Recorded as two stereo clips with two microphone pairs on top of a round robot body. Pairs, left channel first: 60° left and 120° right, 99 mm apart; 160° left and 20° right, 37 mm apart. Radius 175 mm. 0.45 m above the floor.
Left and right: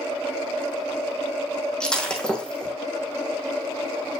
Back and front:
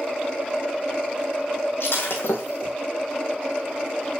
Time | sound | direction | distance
1.8 | breaking glass | 145° left | 1.8 m